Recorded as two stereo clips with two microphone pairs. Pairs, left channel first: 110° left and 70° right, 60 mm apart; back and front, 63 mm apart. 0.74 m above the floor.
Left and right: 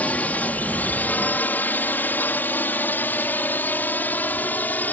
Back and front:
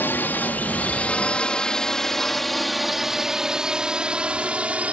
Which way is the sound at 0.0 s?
155° left.